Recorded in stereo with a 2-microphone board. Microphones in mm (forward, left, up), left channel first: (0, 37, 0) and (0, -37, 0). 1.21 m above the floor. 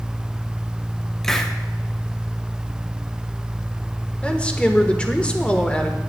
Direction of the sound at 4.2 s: 15° left (ahead or behind).